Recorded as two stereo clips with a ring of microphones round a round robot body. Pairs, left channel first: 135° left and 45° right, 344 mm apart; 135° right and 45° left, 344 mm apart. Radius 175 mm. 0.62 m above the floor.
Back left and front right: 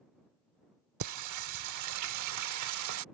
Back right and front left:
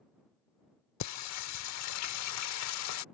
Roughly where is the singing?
Right.